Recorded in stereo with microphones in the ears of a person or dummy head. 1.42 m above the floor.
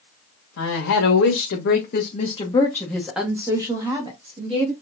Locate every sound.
0.6 s a woman speaking: 85° left, 1.6 m; by 4.7 s 35° right (ahead or behind), 1.9 m